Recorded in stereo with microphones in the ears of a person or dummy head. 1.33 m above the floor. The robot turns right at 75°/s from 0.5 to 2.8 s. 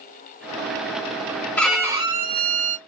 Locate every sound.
1.6 s a violin: 170° left, 0.8 m; by 2.8 s 100° right, 0.8 m